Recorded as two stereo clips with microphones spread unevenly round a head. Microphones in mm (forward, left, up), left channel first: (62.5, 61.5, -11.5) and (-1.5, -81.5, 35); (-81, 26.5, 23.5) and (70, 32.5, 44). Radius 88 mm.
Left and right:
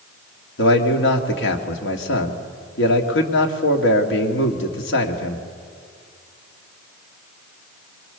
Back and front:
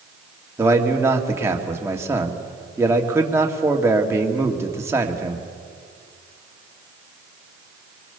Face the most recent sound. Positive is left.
turn(degrees=75)